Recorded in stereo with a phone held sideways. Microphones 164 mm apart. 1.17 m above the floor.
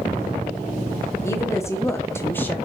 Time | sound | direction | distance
1.2 | a woman speaking | 15° left (ahead or behind) | 0.8 m